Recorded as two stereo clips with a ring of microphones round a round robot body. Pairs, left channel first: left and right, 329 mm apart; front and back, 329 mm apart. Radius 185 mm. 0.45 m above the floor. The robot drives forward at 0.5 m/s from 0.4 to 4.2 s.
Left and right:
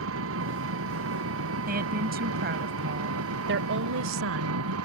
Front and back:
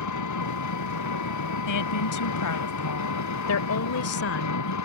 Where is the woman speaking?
25° right; by 4.8 s 40° right.